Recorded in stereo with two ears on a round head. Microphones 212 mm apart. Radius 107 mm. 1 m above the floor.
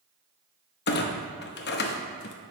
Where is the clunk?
45° left (ahead or behind), 0.8 m.